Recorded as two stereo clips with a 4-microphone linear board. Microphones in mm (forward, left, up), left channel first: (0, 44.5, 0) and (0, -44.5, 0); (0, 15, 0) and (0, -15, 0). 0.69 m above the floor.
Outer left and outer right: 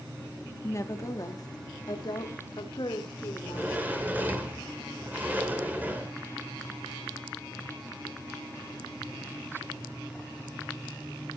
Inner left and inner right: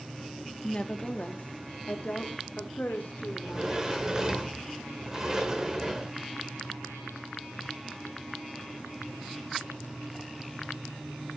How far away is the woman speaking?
About 1.2 m.